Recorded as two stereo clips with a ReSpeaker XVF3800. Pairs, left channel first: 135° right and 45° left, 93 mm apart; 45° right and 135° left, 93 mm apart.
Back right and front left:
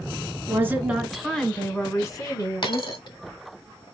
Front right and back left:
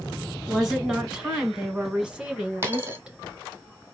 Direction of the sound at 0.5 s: 55° left.